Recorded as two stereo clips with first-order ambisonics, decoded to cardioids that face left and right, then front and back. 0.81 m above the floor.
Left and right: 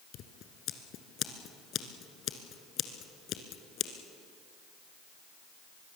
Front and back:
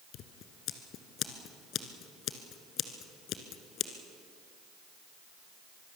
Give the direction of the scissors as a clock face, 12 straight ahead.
11 o'clock.